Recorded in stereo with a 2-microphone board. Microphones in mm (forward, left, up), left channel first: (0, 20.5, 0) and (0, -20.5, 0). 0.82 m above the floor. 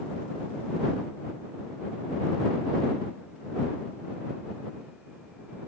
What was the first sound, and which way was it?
Only background noise.